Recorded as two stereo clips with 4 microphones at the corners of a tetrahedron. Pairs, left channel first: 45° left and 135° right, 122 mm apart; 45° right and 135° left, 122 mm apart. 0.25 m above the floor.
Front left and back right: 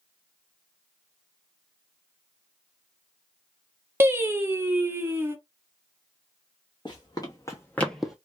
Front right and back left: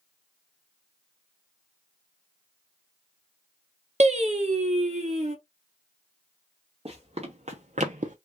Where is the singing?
155° left, 0.8 m.